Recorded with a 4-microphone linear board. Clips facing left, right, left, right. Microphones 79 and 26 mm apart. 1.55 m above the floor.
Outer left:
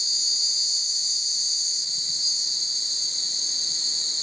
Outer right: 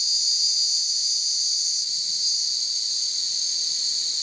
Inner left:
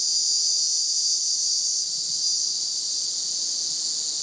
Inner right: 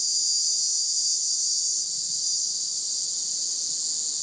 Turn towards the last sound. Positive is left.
turn(degrees=35)  # may be behind; listen again after turning